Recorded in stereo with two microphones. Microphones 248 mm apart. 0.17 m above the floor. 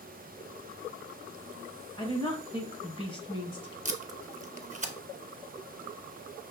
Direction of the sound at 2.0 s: 20° left (ahead or behind).